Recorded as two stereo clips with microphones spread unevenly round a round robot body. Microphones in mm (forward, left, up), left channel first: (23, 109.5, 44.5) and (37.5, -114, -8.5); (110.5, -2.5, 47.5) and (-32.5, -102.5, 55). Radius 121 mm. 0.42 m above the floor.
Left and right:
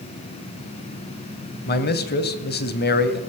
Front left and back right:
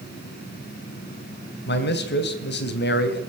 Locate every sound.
1.7 s a man speaking: 45° left, 2.5 m